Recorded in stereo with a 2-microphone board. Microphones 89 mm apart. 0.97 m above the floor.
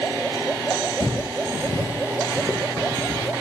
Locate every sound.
1.0 s footsteps: 35° left (ahead or behind), 1.1 m; by 3.3 s 15° left (ahead or behind), 1.9 m